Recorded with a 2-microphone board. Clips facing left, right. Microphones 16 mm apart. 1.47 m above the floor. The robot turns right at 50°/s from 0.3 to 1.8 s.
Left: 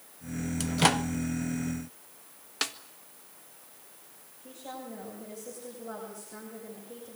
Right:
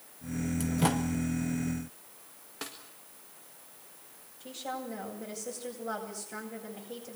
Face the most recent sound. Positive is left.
turn(degrees=-80)